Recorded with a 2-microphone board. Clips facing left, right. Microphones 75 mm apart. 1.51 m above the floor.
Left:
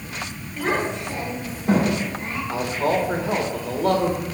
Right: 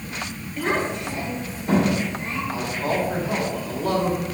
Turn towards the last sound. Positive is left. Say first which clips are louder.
# left 4 dB
turn(degrees=65)  # may be behind; listen again after turning